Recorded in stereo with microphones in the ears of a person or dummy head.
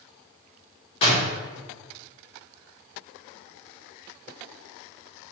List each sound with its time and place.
1.0 s a door slam: 30° left (ahead or behind), 1.1 m